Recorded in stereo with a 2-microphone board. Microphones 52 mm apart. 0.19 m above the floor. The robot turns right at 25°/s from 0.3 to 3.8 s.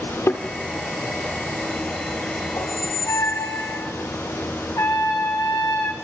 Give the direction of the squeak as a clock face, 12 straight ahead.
9 o'clock.